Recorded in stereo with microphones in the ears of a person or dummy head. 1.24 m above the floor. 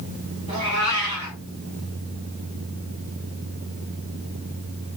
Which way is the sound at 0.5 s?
20° right (ahead or behind).